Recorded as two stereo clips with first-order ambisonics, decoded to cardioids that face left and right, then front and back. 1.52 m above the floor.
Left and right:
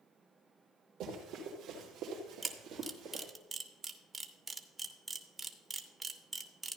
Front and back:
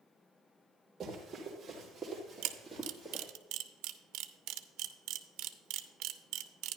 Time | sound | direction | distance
1.0 | running footsteps | 105° right | 2.5 m
2.4 | a camera shutter | 165° right | 0.6 m